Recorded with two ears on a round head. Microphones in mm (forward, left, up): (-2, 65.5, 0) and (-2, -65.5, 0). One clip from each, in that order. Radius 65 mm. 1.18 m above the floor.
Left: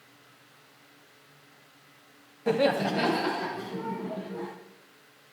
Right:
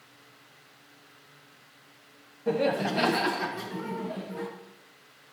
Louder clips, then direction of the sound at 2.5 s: Left 2 dB; 40° left (ahead or behind).